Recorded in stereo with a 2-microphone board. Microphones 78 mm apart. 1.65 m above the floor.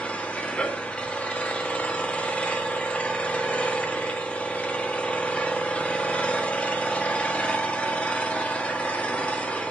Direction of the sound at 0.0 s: 15° left (ahead or behind).